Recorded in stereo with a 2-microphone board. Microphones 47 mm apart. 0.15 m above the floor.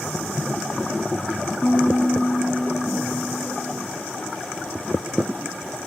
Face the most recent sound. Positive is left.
turn(degrees=20)  # may be behind; listen again after turning